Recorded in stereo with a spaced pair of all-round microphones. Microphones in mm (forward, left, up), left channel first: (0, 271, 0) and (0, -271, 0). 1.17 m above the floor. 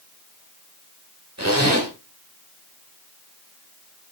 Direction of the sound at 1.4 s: 30° right (ahead or behind).